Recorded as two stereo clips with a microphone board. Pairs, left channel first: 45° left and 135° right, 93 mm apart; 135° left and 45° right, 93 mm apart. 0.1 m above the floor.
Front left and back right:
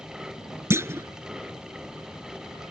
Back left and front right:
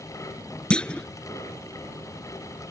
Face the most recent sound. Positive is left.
turn(degrees=-155)